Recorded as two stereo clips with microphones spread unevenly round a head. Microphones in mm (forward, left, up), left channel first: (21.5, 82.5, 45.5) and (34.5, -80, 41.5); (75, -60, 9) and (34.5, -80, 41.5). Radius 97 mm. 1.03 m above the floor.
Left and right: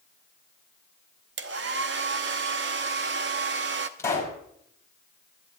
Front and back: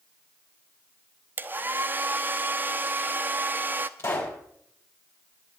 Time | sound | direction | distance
1.4 | a hair dryer | 120° right | 0.8 m
4.0 | a pop | 20° left | 6.5 m